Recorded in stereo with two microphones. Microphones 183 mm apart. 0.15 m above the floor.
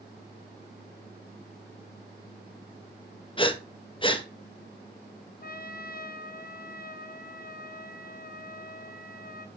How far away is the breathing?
About 0.9 m.